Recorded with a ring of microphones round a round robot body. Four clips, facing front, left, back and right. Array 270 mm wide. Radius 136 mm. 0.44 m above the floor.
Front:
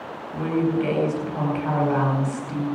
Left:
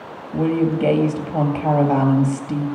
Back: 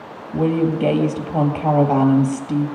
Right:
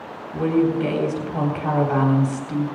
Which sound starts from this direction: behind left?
A woman speaking, at 0.3 s.